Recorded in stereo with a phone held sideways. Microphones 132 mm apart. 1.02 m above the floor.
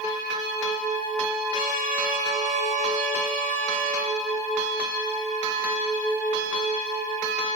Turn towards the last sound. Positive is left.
turn(degrees=-70)  # may be behind; listen again after turning